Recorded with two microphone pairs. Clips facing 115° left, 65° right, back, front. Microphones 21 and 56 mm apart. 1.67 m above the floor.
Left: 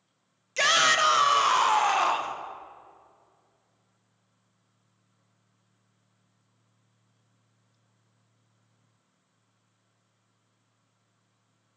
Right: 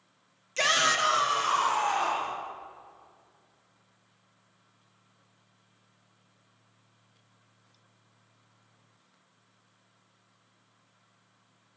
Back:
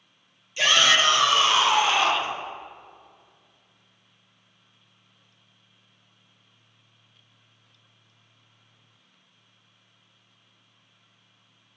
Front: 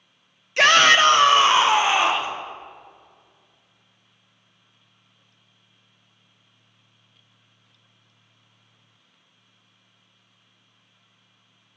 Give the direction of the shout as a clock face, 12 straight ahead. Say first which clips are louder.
Left 3 dB, front 6 dB; 11 o'clock.